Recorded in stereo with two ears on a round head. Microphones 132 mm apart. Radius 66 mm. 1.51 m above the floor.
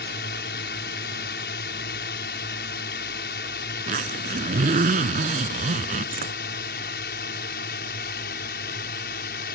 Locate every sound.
0.0 s a drone: 75° left (ahead or behind); by 9.6 s 70° left (ahead or behind)
3.9 s a zipper: 50° right (ahead or behind)